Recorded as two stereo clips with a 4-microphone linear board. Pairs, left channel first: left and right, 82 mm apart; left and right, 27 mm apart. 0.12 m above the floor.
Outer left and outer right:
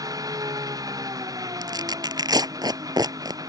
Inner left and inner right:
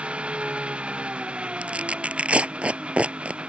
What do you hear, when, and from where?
0.0 s an engine running: 45° right (ahead or behind)
1.6 s tearing paper: 50° right (ahead or behind)